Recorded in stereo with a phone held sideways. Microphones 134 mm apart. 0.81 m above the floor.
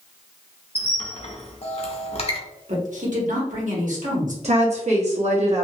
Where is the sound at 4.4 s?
55° right (ahead or behind), 1.2 m.